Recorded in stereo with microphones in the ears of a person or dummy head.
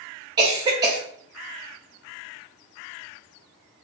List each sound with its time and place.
0.4 s a cough: 25° right (ahead or behind), 0.7 m